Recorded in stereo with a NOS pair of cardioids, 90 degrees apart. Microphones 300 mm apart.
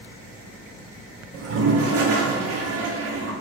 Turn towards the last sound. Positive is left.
turn(degrees=-55)